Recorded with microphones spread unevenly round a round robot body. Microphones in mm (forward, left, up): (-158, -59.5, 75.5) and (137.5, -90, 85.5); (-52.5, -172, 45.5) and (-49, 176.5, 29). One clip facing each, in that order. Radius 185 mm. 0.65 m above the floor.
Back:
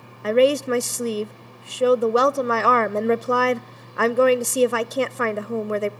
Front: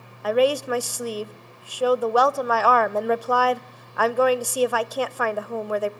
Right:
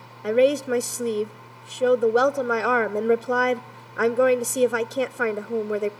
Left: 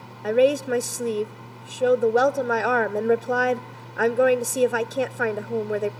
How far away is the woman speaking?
About 0.5 m.